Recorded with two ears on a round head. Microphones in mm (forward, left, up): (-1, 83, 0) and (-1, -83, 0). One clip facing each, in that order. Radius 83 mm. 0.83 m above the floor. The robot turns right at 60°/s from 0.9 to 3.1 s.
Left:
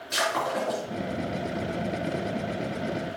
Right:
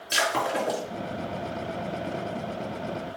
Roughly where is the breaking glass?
Right.